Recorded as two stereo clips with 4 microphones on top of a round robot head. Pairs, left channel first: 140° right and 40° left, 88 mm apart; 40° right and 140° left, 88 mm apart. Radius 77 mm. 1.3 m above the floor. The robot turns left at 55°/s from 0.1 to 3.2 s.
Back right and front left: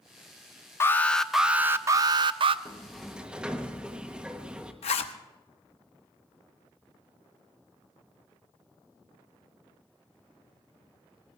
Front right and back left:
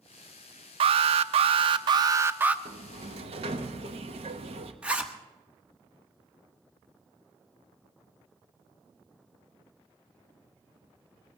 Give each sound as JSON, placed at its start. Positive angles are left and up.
{"t": 0.8, "sound": "an alarm", "azimuth_deg": 160, "distance_m": 0.6}
{"t": 2.6, "sound": "a sliding door", "azimuth_deg": 150, "distance_m": 1.1}
{"t": 4.8, "sound": "a zipper", "azimuth_deg": -145, "distance_m": 1.0}